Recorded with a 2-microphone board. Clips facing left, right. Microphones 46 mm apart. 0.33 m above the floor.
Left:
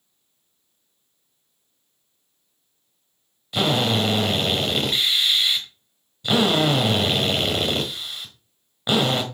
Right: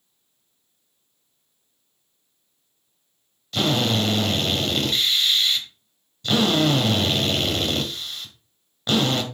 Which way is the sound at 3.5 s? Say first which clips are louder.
Left 1 dB; 15° left (ahead or behind).